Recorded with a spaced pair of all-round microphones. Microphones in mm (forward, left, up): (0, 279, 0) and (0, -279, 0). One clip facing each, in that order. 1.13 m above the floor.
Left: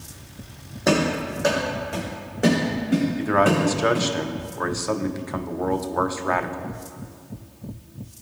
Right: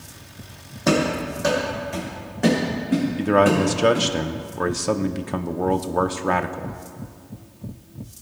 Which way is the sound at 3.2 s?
55° right (ahead or behind).